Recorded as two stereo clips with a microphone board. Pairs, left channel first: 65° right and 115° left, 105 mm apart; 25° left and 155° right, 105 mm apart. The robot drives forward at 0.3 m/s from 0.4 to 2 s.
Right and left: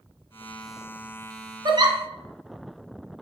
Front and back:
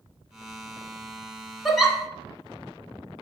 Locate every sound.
1.6 s a giggle: 110° left, 0.6 m; by 2.0 s 120° left, 0.6 m